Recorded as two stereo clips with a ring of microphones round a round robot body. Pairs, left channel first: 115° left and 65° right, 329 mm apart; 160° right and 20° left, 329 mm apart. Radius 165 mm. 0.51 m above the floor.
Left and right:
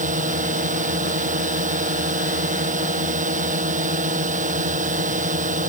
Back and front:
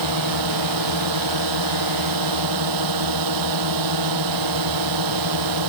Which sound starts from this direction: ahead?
A drone, at 0.0 s.